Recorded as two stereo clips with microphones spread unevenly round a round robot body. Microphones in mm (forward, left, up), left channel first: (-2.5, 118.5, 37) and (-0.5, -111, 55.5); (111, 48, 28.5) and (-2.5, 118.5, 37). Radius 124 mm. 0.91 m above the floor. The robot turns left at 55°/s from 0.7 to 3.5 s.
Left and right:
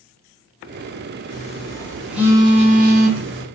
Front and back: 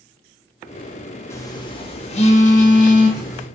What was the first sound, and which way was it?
A phone buzzing, 40° left.